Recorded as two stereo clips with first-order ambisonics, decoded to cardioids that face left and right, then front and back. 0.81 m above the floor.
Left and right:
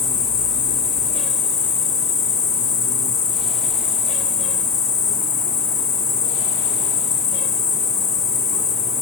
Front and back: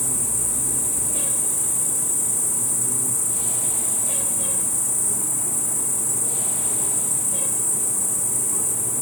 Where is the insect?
85° left, 1.2 m.